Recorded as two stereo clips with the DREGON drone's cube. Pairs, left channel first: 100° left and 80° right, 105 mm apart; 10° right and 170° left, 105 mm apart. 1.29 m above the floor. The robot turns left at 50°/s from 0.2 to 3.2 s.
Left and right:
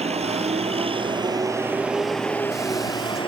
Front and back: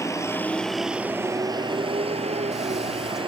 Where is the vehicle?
70° right; by 3.3 s 135° left.